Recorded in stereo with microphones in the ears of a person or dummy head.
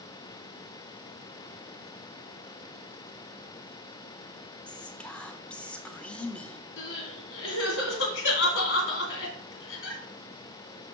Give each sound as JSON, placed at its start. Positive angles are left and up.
{"t": 4.7, "sound": "whispering", "side_deg": 10, "distance_m": 0.5}
{"t": 6.8, "sound": "crying", "side_deg": 70, "distance_m": 2.0}